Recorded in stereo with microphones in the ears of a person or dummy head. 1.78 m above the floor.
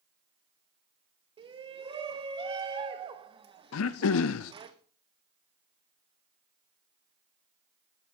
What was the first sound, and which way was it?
A shout, 30° right (ahead or behind).